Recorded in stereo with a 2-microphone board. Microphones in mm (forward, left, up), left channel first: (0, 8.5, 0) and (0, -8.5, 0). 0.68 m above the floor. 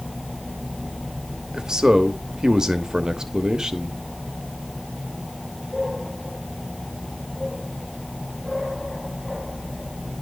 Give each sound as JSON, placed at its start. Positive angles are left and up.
{"t": 1.5, "sound": "a man speaking", "side_deg": -45, "distance_m": 0.9}